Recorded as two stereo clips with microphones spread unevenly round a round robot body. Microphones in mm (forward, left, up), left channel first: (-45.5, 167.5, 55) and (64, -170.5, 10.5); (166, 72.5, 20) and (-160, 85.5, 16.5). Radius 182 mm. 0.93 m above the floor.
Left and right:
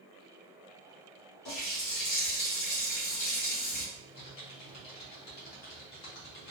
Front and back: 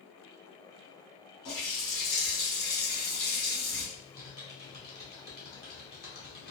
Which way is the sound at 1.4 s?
45° left.